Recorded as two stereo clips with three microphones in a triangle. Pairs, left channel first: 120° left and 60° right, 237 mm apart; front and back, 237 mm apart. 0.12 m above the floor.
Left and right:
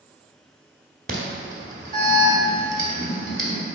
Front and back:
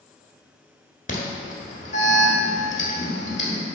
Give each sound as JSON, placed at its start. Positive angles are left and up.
{"t": 1.1, "sound": "an alarm", "azimuth_deg": -30, "distance_m": 1.0}